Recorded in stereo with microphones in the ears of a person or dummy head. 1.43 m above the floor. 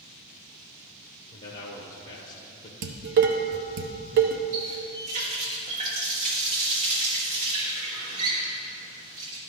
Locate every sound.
1.3 s a man speaking: 45° left (ahead or behind), 1.1 m
2.8 s dishes clattering: 45° right (ahead or behind), 0.9 m
4.5 s a running tap: 40° right (ahead or behind), 1.7 m